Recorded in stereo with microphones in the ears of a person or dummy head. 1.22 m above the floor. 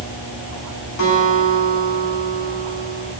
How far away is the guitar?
About 8 m.